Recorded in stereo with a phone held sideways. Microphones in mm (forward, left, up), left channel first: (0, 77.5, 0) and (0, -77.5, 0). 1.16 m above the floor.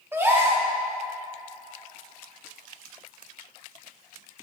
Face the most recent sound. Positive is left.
turn(degrees=-15)  # may be behind; listen again after turning